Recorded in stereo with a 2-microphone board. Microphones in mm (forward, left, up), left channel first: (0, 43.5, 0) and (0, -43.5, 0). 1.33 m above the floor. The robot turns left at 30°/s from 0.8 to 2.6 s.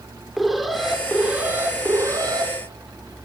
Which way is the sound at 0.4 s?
Straight ahead.